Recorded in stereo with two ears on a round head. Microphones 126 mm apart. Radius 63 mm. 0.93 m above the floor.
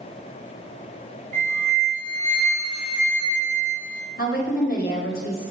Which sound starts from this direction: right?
A flute, at 1.3 s.